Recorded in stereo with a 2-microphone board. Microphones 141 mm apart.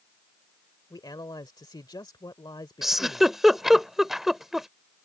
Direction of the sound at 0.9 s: 30° left (ahead or behind).